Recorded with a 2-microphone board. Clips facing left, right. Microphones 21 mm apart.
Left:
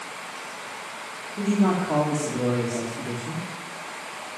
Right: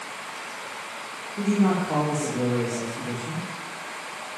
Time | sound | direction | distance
1.4 | a man speaking | centre (ahead or behind) | 3 m